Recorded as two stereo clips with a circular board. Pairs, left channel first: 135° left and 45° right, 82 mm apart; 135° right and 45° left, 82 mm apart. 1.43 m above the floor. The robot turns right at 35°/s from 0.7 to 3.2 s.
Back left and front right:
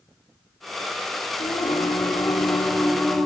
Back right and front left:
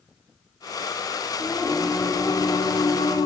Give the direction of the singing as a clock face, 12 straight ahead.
7 o'clock.